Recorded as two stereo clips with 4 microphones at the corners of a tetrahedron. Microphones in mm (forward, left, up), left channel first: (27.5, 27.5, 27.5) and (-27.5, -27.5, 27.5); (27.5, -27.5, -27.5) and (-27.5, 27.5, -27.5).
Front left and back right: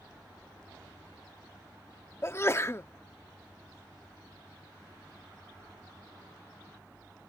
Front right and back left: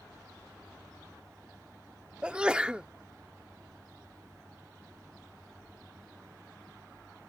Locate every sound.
2.2 s a sneeze: 65° left